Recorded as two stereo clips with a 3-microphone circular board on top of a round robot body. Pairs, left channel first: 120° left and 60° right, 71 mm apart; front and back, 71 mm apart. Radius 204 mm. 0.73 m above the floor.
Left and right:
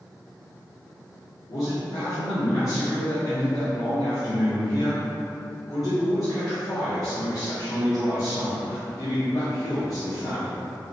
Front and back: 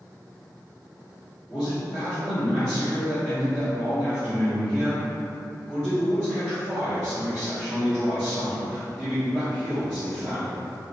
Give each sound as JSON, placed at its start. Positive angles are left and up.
{"t": 1.5, "sound": "a man speaking", "azimuth_deg": 75, "distance_m": 1.6}